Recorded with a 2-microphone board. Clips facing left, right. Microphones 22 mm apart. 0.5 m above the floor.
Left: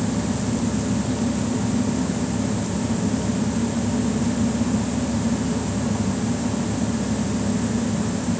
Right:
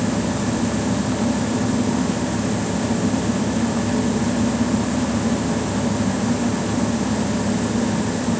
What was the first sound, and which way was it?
Only background noise.